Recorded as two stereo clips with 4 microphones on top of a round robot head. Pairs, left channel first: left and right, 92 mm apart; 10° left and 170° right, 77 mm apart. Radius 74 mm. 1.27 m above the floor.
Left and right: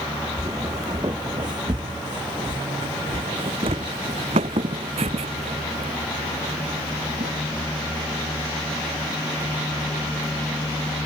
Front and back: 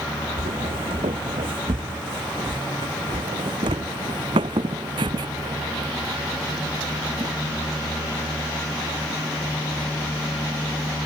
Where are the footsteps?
150° right; by 7.3 s 120° right.